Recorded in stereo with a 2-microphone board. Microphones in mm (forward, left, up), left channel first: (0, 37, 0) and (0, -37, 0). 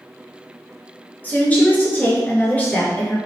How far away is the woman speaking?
About 1.2 m.